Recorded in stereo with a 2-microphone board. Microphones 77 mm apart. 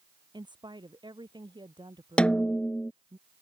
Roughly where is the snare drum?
Centre.